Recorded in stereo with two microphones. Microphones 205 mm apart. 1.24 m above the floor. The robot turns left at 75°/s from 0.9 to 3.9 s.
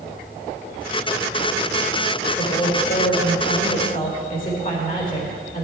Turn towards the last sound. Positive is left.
turn(degrees=45)